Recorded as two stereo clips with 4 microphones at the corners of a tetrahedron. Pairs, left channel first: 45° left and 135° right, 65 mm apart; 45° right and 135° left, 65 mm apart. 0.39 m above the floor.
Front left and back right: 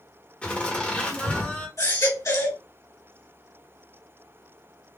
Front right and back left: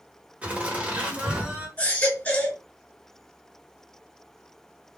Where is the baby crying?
20° left, 2 m.